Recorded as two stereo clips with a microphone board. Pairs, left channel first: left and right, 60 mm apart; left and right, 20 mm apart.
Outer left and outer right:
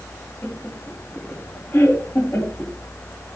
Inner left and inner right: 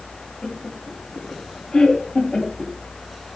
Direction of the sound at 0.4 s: 50° left (ahead or behind).